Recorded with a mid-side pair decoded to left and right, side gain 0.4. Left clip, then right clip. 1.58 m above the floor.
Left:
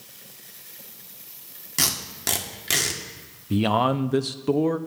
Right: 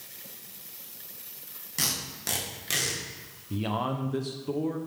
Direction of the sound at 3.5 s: 65° left.